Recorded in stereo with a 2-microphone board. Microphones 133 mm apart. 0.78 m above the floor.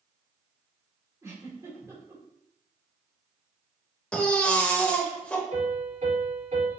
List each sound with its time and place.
1.2 s a giggle: 20° right (ahead or behind), 1.9 m
4.1 s a baby crying: 10° left (ahead or behind), 0.9 m
5.5 s a piano: 60° right (ahead or behind), 2 m